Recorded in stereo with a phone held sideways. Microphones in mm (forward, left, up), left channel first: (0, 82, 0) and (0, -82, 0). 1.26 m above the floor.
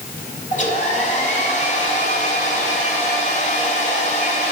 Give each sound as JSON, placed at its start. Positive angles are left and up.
{"t": 0.5, "sound": "a hair dryer", "side_deg": 45, "distance_m": 2.5}